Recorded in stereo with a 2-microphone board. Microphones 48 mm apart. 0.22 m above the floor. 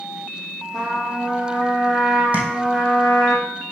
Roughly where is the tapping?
Right.